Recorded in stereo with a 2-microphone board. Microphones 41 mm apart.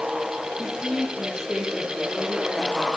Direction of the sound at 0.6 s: 20° right (ahead or behind).